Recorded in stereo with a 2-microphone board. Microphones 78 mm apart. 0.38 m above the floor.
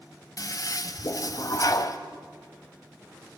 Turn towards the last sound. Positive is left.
turn(degrees=50)  # may be behind; listen again after turning